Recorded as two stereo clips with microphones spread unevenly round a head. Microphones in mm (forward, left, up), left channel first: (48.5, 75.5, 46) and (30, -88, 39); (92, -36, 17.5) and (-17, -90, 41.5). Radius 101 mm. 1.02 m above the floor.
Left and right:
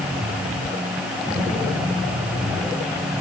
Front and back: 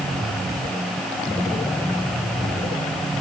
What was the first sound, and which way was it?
Only background noise.